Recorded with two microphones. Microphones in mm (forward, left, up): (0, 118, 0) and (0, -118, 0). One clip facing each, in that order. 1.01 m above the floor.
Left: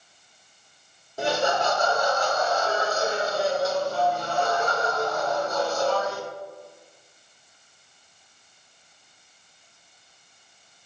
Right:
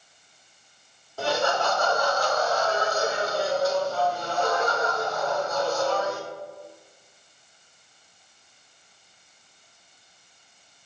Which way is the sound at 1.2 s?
20° left (ahead or behind).